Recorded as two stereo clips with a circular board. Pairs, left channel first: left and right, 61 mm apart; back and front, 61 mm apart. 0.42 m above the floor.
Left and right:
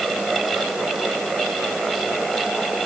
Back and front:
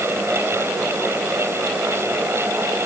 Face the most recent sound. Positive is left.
No sound to turn to.